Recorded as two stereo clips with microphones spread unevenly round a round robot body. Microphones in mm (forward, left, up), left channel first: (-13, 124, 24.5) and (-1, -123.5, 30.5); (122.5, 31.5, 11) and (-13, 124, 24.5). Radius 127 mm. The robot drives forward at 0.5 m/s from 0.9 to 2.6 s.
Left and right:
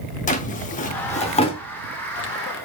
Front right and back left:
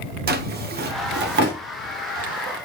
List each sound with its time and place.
0.3 s a drawer: 145° left, 0.7 m; by 1.6 s 160° left, 1.0 m